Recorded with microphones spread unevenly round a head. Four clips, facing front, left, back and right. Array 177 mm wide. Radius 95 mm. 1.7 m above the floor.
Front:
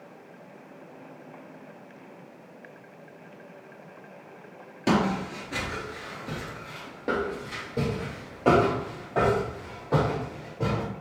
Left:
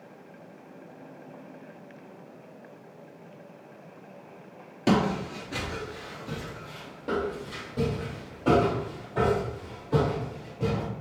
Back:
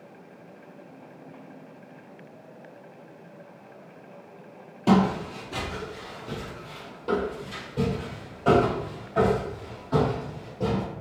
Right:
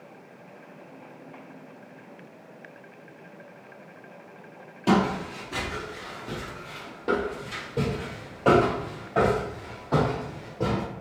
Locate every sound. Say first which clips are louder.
4.9 s footsteps: right 1 dB, back 3 dB; 80° left, 1.8 m; by 10.8 s 50° right, 4.5 m